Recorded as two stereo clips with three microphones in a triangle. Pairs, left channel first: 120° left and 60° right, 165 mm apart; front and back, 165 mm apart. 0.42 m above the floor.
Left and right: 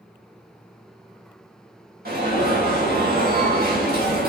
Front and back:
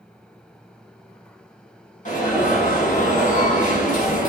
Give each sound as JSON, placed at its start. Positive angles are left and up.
{"t": 2.0, "sound": "an alarm", "azimuth_deg": -40, "distance_m": 4.5}